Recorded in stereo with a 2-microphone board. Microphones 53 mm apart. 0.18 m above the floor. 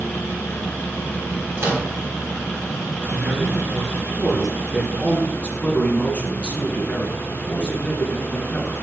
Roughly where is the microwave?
Right.